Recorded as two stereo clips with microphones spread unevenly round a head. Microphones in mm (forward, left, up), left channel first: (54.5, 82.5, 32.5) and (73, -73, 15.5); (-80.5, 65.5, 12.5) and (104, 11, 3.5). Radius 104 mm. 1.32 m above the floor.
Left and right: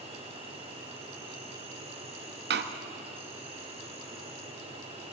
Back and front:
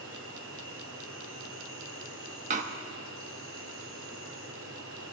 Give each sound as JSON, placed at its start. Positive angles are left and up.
{"t": 0.0, "sound": "an insect", "azimuth_deg": -30, "distance_m": 6.0}
{"t": 2.5, "sound": "a door slam", "azimuth_deg": -75, "distance_m": 1.3}